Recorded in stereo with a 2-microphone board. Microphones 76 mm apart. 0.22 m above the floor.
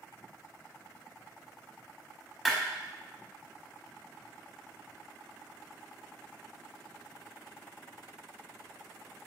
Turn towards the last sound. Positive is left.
turn(degrees=0)  # may be behind; listen again after turning